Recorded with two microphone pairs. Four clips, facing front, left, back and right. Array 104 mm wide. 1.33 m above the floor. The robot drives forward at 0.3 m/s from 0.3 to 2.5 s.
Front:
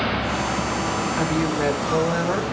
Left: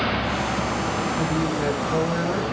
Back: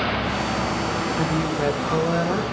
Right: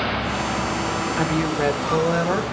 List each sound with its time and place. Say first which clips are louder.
1.2 s a woman speaking: right 2 dB, front 2 dB; 85° right, 2 m; by 2.4 s 95° right, 2 m